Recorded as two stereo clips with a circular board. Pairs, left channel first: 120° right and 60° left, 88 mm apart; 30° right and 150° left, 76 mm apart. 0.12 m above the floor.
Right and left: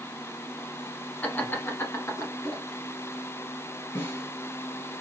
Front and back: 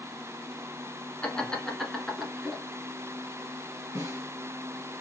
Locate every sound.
1.2 s laughter: 80° right, 1.1 m; by 2.6 s 130° right, 1.4 m
4.0 s a snare drum: 170° right, 2 m